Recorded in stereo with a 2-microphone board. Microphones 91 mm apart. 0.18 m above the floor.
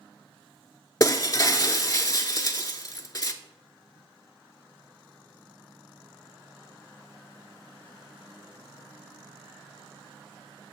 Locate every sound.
1.0 s breaking glass: 40° left (ahead or behind), 0.6 m